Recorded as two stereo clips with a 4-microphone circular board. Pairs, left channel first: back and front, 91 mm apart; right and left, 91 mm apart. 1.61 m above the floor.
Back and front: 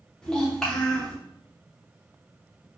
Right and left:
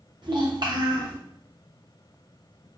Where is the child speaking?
100° left, 0.8 m.